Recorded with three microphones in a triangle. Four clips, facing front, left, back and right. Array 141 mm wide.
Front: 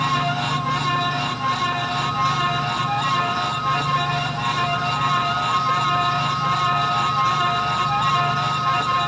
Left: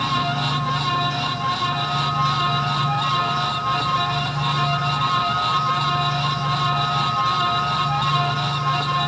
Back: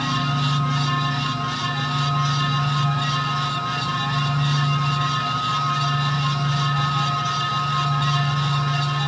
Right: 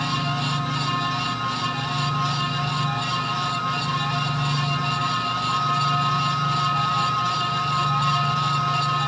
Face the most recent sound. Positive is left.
No sound to turn to.